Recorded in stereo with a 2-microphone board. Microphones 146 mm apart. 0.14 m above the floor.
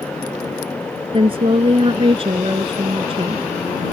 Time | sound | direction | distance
1.1 | a woman speaking | 40° right (ahead or behind) | ?